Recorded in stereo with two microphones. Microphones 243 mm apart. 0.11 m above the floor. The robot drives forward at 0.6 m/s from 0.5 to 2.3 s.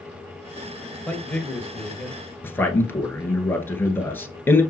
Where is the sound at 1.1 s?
5° left (ahead or behind), 1.4 m.